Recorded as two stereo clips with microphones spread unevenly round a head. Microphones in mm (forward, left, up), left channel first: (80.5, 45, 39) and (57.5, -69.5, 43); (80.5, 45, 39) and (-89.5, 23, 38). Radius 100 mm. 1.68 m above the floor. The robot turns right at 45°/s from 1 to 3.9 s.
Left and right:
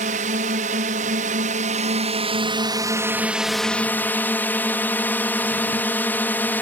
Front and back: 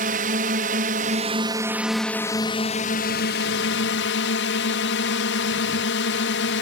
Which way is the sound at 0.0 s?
125° right.